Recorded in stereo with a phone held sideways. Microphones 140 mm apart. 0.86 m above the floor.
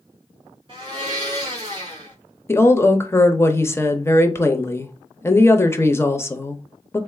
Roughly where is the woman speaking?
Centre.